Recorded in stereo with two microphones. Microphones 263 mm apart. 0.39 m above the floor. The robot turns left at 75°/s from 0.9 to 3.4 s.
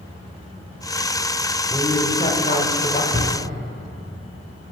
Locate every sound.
1.7 s a woman speaking: 175° left, 0.8 m; by 3.0 s 75° left, 0.8 m
3.1 s a drawer: 65° right (ahead or behind), 2.5 m; by 3.3 s 80° right, 2.5 m